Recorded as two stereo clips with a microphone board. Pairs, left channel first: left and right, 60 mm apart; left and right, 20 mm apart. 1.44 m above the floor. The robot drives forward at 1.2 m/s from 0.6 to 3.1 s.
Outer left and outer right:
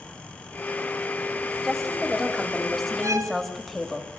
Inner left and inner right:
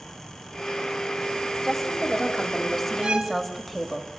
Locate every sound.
1.6 s a woman speaking: centre (ahead or behind), 5.5 m; by 4.0 s 5° left (ahead or behind), 3.5 m
3.0 s a violin: 60° right (ahead or behind), 3.5 m; by 3.3 s 55° right (ahead or behind), 3.5 m